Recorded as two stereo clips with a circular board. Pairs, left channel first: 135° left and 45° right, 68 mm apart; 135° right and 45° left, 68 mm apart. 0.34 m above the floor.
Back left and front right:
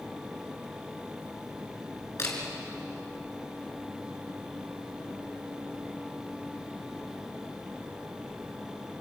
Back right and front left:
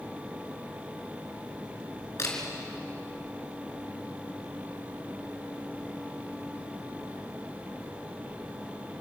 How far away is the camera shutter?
About 3.5 m.